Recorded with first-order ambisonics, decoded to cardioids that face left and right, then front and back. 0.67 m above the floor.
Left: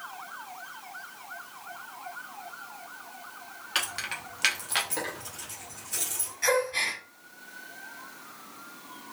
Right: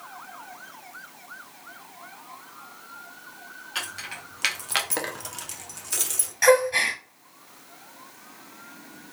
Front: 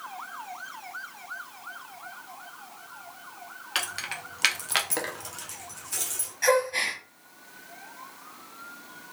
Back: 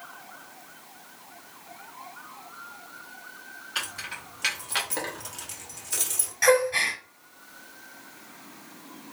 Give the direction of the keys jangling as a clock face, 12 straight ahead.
11 o'clock.